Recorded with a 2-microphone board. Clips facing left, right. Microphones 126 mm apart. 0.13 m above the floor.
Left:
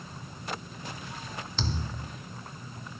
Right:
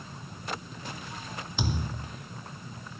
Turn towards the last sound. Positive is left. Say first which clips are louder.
# right 3 dB
turn(degrees=-15)  # may be behind; listen again after turning